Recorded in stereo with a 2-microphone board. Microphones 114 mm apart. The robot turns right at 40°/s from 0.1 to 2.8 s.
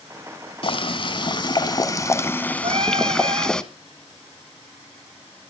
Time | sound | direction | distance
0.6 | boiling | 85° left | 1.0 m
2.6 | singing | 65° right (ahead or behind) | 1.2 m